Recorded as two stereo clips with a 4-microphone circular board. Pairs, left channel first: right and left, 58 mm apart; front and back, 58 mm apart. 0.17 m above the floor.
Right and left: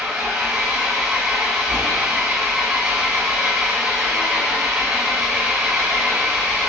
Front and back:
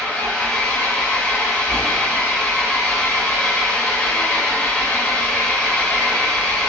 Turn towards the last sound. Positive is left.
turn(degrees=30)